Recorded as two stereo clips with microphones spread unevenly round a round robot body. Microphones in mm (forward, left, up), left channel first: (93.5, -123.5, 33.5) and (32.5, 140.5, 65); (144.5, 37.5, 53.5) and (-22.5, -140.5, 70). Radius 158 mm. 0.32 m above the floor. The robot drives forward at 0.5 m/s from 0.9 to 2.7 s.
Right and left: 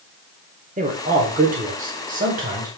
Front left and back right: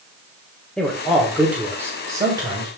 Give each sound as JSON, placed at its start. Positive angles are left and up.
{"t": 0.8, "sound": "a man speaking", "azimuth_deg": 115, "distance_m": 1.3}